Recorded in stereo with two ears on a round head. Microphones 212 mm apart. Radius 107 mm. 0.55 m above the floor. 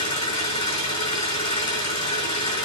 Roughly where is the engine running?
Left.